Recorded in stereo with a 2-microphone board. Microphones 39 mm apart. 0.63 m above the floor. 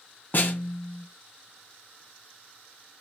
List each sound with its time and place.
0.3 s a snare drum: 55° left (ahead or behind), 0.5 m